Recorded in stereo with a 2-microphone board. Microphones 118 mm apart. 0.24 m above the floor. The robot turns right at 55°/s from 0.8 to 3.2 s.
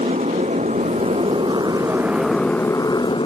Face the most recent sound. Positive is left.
turn(degrees=50)